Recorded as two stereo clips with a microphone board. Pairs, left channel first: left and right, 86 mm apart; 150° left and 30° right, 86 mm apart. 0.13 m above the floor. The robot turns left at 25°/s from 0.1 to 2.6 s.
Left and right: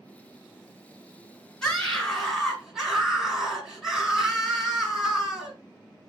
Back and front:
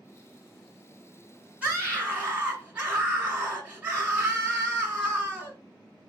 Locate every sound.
1.6 s a scream: 10° left, 1.4 m; by 5.5 s 15° right, 1.4 m